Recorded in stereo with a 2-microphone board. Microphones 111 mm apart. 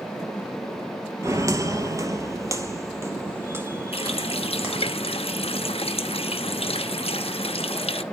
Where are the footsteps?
25° right (ahead or behind), 1.0 m; by 4.9 s 15° right (ahead or behind), 2.5 m.